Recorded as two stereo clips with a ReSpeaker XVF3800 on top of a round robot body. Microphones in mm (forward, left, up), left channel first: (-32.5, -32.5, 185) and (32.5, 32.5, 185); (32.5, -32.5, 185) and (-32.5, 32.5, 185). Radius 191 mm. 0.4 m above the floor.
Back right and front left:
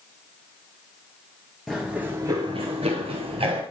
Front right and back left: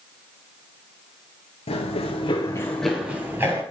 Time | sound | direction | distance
1.7 | running footsteps | 45° right | 0.7 m